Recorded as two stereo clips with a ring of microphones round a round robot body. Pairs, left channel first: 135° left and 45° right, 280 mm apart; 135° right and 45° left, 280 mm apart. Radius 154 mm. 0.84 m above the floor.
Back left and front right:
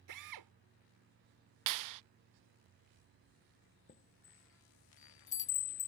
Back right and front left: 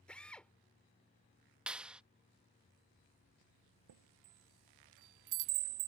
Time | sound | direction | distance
0.1 | a drill | 50° right | ?
1.7 | a clap | 40° right | ?
3.9 | a chime | 70° left | ?